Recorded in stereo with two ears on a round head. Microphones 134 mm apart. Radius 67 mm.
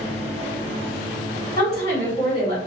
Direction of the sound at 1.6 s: 25° left (ahead or behind).